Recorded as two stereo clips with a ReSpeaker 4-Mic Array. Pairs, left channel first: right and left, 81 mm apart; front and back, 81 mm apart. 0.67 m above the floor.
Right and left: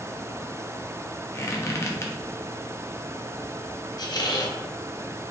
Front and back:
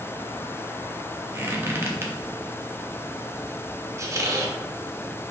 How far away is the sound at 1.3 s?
About 0.7 m.